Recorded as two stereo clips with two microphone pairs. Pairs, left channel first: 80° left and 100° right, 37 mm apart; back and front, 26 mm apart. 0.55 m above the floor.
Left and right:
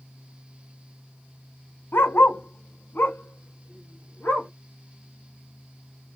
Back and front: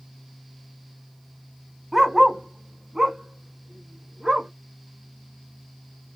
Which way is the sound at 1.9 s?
80° left.